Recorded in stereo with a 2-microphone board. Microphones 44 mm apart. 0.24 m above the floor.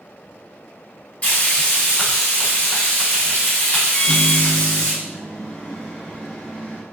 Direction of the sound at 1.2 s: 35° left (ahead or behind).